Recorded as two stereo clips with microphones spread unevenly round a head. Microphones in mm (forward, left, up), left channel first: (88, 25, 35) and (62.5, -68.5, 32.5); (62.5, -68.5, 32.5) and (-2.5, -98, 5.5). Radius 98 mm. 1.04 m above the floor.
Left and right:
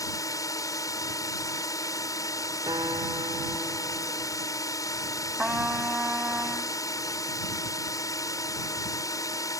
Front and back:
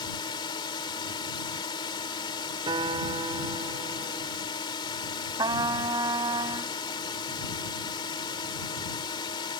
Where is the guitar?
175° right.